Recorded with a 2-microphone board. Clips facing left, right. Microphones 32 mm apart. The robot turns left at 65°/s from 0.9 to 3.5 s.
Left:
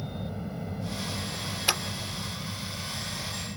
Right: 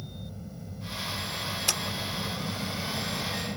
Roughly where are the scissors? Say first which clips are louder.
Left 4 dB; left.